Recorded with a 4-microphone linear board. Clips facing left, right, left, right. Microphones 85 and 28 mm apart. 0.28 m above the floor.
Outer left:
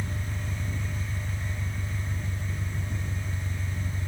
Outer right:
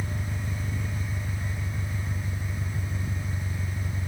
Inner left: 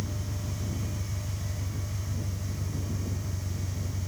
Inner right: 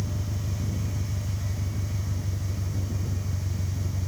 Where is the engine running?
20° right (ahead or behind).